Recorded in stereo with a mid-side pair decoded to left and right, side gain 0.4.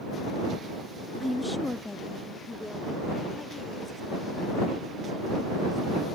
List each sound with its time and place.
1.2 s a woman speaking: 10° left; by 6.2 s 30° left